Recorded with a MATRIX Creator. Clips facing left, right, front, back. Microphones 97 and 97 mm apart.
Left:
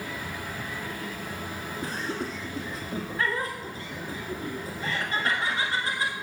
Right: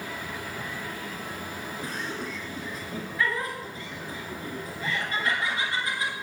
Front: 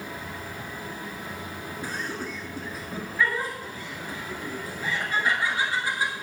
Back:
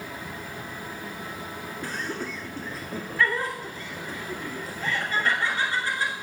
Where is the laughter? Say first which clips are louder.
Left 3 dB, back 1 dB; 65° left, 1.8 m.